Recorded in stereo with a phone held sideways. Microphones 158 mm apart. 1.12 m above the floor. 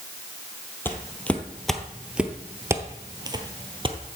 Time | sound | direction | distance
0.8 | footsteps | 15° left (ahead or behind) | 1.5 m